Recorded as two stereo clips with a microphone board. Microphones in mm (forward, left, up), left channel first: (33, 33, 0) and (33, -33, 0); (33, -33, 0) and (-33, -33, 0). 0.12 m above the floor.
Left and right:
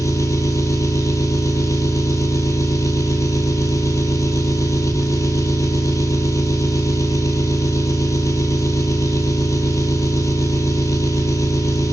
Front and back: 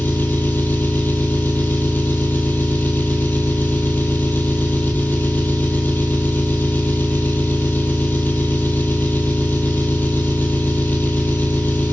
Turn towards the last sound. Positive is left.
turn(degrees=60)